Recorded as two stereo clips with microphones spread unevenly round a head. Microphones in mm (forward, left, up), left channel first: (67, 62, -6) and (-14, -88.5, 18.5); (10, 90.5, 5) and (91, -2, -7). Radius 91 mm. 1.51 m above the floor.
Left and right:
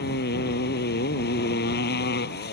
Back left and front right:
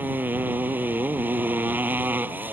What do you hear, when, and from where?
0.0 s a motorcycle: 30° left